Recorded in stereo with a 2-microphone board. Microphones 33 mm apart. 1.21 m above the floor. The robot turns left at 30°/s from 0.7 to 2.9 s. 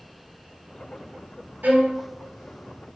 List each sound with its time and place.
1.6 s a violin: 70° right (ahead or behind), 1.2 m; by 2.0 s 80° right, 1.2 m